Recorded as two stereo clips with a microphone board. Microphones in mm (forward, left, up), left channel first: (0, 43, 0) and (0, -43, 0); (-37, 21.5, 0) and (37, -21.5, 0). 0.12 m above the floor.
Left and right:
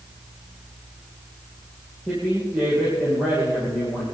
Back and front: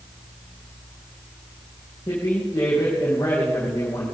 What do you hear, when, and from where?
2.1 s a woman speaking: 160° right, 5 m